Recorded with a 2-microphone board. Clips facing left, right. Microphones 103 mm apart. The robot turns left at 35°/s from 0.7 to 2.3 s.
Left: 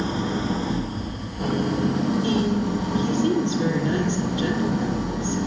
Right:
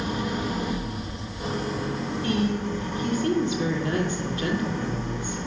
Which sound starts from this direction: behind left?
An engine running, at 0.0 s.